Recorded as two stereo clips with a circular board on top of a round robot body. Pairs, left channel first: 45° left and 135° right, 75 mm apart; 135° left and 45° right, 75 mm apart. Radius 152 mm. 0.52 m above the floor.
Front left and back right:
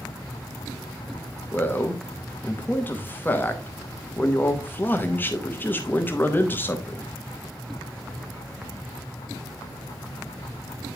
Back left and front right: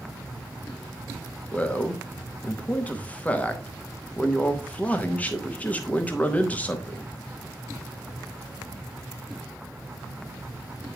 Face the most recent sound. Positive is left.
turn(degrees=80)